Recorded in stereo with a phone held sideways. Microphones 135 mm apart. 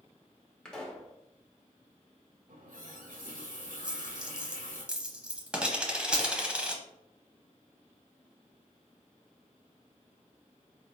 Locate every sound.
0.7 s a pop: 5° left (ahead or behind), 1.1 m
2.5 s a running tap: 90° right, 1.1 m
3.8 s a dropped coin: 5° right (ahead or behind), 0.8 m